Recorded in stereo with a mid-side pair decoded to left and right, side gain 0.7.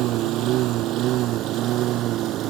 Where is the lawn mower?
60° right; by 2.5 s 55° right.